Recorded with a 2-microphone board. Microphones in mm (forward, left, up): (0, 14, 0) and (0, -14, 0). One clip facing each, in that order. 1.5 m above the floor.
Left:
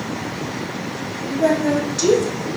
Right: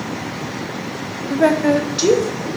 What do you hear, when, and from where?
1.3 s a woman speaking: 55° right (ahead or behind), 0.8 m; by 2.5 s 25° right (ahead or behind), 1.4 m